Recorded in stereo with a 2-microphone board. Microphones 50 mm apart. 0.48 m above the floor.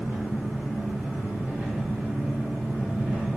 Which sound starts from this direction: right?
An engine running, at 0.0 s.